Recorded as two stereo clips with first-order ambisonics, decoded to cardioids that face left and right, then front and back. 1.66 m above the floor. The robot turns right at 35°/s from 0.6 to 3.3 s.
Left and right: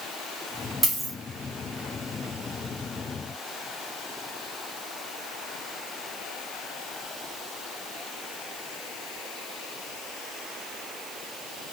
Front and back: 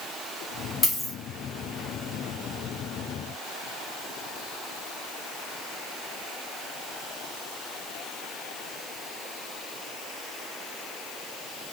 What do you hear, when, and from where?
0.8 s a dropped coin: 50° right, 0.9 m; by 1.1 s 40° right, 0.9 m